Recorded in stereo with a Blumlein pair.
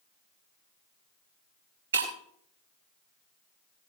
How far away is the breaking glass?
About 3 m.